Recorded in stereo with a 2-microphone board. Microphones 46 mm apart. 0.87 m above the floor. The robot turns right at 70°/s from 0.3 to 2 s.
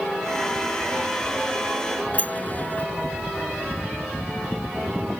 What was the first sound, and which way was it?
A sliding door, 40° left (ahead or behind).